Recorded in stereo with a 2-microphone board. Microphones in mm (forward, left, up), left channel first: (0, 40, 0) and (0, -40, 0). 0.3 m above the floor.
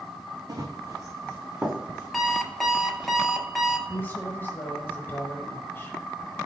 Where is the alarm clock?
Centre (ahead or behind), 0.8 m.